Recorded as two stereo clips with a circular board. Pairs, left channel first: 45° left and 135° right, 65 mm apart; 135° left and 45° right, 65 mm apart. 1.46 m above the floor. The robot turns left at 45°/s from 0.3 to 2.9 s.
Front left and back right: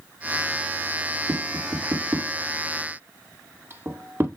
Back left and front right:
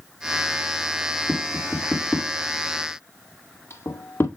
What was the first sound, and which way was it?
Tapping, 115° right.